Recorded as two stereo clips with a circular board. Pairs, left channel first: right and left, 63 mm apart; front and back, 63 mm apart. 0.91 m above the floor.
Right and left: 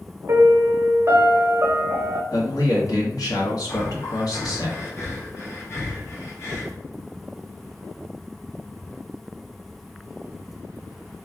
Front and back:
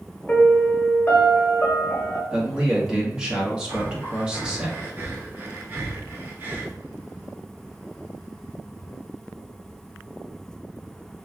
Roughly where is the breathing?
Behind right.